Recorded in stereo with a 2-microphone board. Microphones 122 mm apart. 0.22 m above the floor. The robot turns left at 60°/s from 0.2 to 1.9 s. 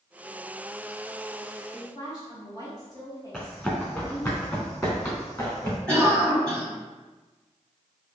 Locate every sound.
1.7 s a woman speaking: 40° left (ahead or behind), 1.6 m; by 4.3 s 35° left (ahead or behind), 1.6 m
3.3 s running footsteps: 10° left (ahead or behind), 1.6 m; by 5.8 s 25° left (ahead or behind), 3 m
5.9 s a cough: 10° left (ahead or behind), 1.7 m